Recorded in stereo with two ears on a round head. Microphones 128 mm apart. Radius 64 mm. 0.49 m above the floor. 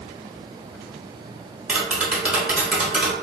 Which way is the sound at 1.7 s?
5° right (ahead or behind).